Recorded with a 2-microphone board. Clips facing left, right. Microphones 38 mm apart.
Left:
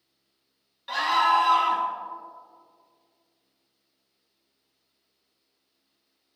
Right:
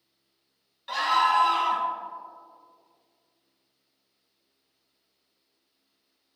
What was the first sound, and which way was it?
A scream, 5° left (ahead or behind).